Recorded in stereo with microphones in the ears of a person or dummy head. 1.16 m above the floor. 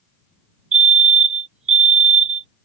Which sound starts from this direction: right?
A fire alarm, at 0.7 s.